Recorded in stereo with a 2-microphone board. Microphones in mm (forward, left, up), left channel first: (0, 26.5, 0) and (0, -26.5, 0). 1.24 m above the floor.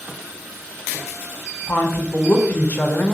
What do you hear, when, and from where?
1.7 s a woman speaking: 35° left (ahead or behind), 0.5 m